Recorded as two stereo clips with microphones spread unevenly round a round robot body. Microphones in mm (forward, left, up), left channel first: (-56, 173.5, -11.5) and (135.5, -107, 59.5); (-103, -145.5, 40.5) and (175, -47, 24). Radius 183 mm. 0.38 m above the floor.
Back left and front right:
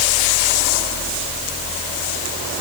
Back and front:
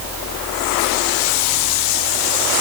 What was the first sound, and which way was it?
Only background noise.